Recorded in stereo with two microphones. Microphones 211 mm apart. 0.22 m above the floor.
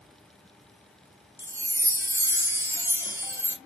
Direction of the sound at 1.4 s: 10° right (ahead or behind).